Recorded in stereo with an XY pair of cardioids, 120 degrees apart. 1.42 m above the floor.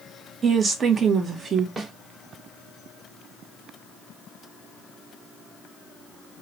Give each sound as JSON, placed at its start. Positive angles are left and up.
{"t": 0.4, "sound": "a woman speaking", "azimuth_deg": -35, "distance_m": 1.1}
{"t": 1.8, "sound": "a snare drum", "azimuth_deg": -30, "distance_m": 1.5}